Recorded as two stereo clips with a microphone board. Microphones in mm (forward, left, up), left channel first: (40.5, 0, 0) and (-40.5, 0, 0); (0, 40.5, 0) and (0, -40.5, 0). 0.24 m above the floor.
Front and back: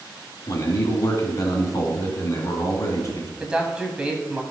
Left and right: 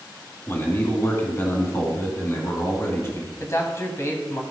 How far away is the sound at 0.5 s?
About 2.5 m.